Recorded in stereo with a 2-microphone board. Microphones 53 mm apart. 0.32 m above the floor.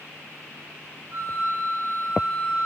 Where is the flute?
40° right (ahead or behind), 5 m.